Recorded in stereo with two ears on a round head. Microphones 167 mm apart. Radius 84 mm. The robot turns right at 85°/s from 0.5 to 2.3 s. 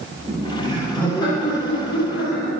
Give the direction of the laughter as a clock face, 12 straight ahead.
1 o'clock.